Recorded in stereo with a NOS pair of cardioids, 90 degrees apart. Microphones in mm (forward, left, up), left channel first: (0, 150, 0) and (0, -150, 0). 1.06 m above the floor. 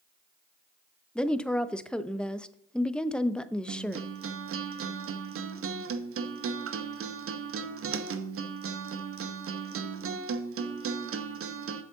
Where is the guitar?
45° right, 0.8 m.